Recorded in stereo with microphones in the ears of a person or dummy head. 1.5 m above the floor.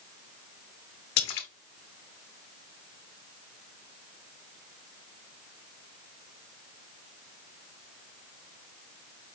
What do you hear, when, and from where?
1.2 s a splash: 55° left (ahead or behind), 0.7 m